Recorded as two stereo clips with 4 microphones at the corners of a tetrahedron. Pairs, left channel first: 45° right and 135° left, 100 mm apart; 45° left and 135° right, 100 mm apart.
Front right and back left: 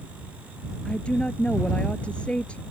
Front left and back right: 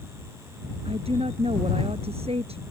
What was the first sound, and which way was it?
A woman speaking, 125° right.